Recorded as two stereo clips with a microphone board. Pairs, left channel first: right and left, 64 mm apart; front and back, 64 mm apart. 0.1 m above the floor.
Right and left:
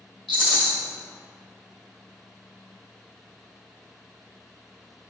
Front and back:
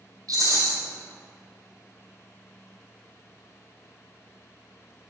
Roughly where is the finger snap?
I don't hear a finger snap.